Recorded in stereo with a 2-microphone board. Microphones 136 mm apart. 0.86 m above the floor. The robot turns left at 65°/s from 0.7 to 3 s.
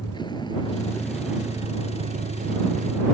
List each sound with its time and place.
0.0 s a vehicle: 35° left; by 3.1 s 115° right